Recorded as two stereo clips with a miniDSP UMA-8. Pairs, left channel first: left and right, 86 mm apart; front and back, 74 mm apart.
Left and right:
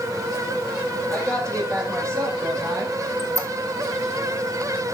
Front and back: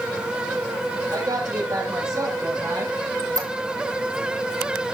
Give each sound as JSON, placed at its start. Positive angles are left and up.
{"t": 1.1, "sound": "a woman speaking", "azimuth_deg": -140, "distance_m": 6.0}
{"t": 3.2, "sound": "a squeak", "azimuth_deg": -145, "distance_m": 1.6}